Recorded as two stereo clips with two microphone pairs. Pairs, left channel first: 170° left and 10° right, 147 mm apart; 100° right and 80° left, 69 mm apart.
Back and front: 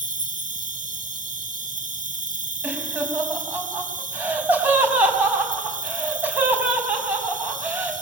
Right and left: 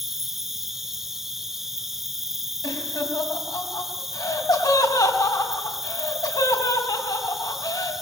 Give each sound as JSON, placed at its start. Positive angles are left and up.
{"t": 0.0, "sound": "an insect", "azimuth_deg": -5, "distance_m": 1.6}
{"t": 2.6, "sound": "laughter", "azimuth_deg": -85, "distance_m": 5.0}